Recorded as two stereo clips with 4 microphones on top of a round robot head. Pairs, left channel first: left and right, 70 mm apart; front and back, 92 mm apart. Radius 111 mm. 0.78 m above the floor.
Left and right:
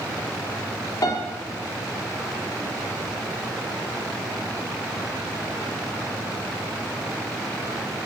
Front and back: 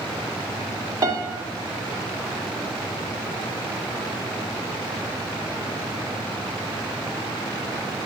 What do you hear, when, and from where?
1.0 s a piano: 135° left, 1.6 m